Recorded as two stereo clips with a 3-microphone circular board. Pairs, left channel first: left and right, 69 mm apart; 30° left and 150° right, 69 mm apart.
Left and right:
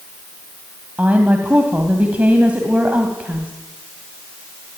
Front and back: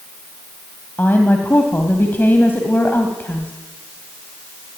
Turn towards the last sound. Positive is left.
turn(degrees=-25)